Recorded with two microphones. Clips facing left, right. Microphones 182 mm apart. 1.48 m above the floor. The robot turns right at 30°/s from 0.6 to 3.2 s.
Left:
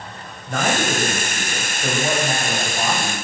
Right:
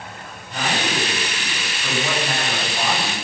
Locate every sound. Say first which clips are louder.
0.5 s a man speaking: left 4 dB; 110° left, 7 m; by 3.1 s 175° right, 7 m